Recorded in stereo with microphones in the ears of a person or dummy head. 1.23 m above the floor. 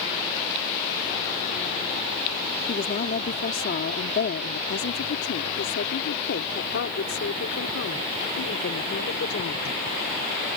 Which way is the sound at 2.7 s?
50° left (ahead or behind).